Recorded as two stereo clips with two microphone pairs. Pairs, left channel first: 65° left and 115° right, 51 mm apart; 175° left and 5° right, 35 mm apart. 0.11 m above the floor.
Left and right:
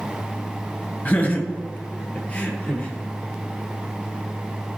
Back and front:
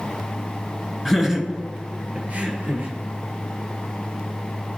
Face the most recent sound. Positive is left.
turn(degrees=0)